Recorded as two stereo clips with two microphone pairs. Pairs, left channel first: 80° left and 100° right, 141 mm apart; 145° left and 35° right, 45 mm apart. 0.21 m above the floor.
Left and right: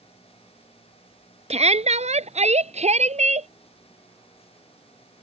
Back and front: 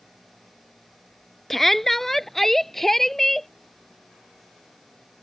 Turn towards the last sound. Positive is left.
turn(degrees=-130)